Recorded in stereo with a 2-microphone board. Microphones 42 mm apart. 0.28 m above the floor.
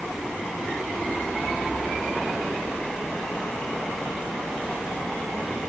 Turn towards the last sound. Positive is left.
No sound to turn to.